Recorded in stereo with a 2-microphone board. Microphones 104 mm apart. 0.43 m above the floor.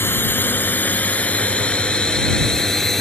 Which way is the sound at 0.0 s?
20° left (ahead or behind).